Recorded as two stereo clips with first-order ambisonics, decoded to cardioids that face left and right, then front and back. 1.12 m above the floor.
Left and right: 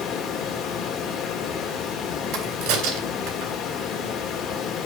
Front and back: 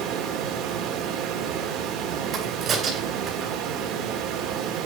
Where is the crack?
115° right, 3.5 m.